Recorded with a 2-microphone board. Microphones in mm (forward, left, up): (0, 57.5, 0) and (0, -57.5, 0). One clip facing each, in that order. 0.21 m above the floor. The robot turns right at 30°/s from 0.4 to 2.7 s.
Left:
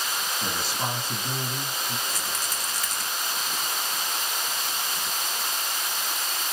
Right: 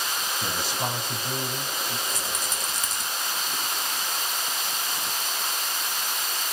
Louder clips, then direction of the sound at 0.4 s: Right 1 dB; 5° right.